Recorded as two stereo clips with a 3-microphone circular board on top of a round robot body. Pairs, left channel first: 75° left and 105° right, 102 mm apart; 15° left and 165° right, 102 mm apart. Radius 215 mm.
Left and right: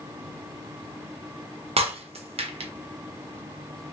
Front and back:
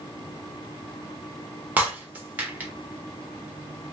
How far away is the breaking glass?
About 0.8 m.